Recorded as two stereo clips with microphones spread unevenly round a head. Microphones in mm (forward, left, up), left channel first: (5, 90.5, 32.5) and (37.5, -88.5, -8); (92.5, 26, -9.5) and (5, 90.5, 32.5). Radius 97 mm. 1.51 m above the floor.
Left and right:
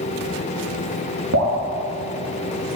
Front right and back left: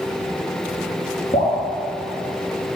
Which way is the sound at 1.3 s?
100° right.